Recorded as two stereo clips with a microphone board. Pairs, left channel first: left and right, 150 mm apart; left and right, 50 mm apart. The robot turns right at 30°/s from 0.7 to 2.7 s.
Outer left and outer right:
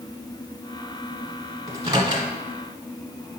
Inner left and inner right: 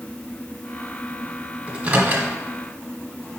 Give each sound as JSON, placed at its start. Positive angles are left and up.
{"t": 1.7, "sound": "a microwave", "side_deg": -25, "distance_m": 0.9}